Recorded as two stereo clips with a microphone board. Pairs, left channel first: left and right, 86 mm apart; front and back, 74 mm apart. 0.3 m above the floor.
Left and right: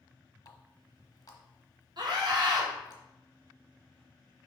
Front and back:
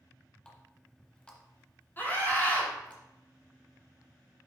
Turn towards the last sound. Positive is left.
turn(degrees=-65)